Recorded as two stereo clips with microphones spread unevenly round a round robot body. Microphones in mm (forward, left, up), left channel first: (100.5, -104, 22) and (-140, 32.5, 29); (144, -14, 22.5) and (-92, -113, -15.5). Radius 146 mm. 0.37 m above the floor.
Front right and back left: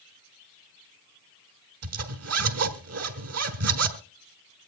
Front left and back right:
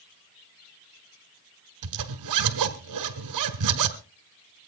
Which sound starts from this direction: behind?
A zipper, at 1.8 s.